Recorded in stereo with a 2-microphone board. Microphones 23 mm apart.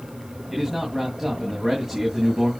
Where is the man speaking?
10° right (ahead or behind), 2.5 m.